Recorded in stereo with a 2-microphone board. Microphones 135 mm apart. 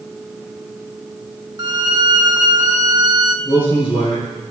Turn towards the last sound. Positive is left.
turn(degrees=35)  # may be behind; listen again after turning